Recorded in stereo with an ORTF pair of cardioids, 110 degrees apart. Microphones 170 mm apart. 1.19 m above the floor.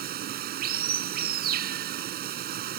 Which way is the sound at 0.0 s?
65° right.